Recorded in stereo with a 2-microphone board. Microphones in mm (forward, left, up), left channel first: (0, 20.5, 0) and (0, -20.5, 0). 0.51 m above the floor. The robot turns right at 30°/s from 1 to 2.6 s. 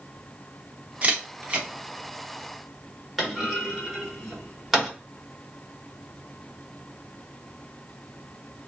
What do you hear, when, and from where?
1.0 s a camera shutter: 35° right (ahead or behind), 0.9 m; by 1.7 s 30° right (ahead or behind), 0.9 m
3.2 s a clunk: centre (ahead or behind), 1.1 m